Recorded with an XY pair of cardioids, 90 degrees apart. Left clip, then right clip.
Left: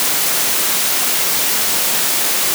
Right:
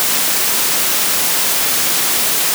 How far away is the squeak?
I don't hear a squeak.